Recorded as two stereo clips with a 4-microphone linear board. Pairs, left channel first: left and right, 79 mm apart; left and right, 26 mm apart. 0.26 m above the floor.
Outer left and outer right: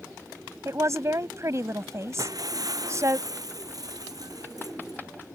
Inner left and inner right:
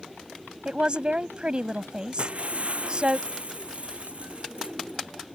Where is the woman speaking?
40° right (ahead or behind).